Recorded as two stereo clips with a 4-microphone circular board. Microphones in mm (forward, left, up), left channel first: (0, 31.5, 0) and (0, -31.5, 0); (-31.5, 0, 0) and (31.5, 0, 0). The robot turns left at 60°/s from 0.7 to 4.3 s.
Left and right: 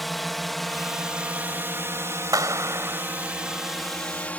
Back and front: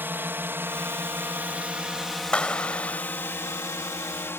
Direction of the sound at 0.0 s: Straight ahead.